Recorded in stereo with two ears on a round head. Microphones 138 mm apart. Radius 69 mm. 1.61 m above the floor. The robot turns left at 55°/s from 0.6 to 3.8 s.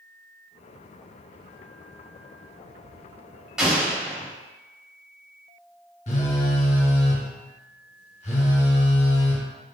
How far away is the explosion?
About 1.0 m.